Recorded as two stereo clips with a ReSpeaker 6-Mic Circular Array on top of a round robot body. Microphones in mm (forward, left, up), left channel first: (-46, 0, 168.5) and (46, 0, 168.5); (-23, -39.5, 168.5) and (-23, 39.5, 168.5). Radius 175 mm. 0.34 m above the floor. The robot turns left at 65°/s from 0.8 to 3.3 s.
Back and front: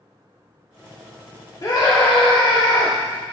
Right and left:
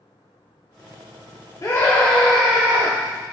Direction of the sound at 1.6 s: 130° right.